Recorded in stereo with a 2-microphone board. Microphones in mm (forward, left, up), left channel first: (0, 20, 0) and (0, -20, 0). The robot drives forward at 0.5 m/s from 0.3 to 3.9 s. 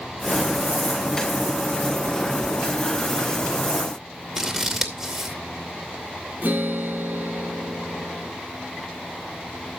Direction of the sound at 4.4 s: 5° right (ahead or behind).